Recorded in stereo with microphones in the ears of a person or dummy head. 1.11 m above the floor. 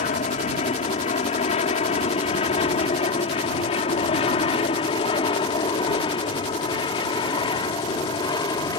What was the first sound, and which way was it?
An aircraft, 40° left (ahead or behind).